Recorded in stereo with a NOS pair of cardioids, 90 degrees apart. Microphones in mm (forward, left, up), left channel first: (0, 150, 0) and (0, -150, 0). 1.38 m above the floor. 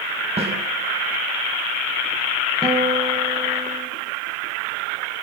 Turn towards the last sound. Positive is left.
turn(degrees=-10)